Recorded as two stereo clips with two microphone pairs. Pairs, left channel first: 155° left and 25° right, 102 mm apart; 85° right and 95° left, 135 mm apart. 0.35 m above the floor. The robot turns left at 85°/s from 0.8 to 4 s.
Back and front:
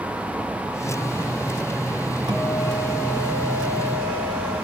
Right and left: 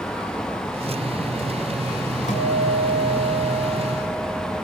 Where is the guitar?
65° right, 4 m; by 4.5 s 145° left, 4 m.